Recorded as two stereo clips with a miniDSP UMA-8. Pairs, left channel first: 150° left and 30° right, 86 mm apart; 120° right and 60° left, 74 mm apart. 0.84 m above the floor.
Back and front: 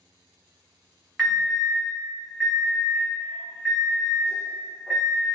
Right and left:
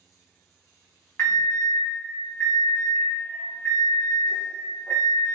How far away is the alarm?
About 1.2 m.